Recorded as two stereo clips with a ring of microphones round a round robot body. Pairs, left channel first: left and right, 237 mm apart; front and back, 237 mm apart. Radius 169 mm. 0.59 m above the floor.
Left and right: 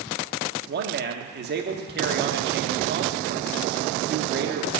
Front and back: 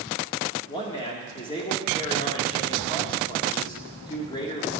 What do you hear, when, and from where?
0.7 s a man speaking: 70° right, 1.2 m